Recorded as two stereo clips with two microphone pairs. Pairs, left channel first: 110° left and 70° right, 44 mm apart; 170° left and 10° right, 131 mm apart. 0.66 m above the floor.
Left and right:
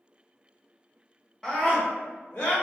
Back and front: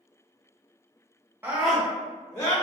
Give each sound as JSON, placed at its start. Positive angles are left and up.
{"t": 1.4, "sound": "a scream", "azimuth_deg": 50, "distance_m": 0.8}